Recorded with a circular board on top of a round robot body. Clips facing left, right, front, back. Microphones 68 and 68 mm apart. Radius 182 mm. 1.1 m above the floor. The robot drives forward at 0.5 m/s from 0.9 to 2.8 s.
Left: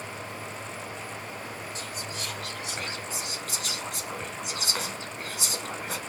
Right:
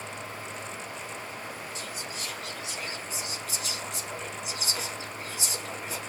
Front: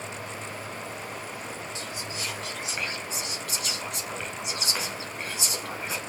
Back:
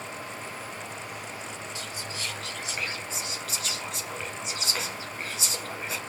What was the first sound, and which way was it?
Whispering, 65° left.